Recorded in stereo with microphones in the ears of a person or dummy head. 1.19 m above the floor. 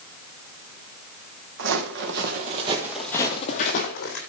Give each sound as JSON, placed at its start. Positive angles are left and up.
{"t": 1.6, "sound": "footsteps", "side_deg": -60, "distance_m": 2.5}